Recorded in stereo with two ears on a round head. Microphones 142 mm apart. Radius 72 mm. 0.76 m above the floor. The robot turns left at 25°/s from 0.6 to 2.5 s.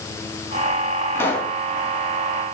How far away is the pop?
About 4 m.